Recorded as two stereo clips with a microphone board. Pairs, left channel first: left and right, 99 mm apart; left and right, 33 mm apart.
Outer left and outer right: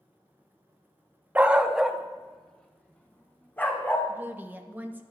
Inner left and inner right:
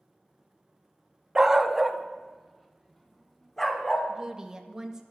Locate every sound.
1.4 s a dog barking: 15° right (ahead or behind), 0.8 m; by 4.1 s 20° left (ahead or behind), 2.0 m
4.1 s a woman speaking: 20° right (ahead or behind), 1.3 m